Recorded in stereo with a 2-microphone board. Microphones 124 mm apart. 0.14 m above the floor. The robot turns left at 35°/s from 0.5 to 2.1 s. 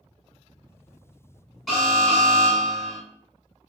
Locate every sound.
1.7 s an alarm: centre (ahead or behind), 1.5 m; by 3.0 s 5° left (ahead or behind), 1.5 m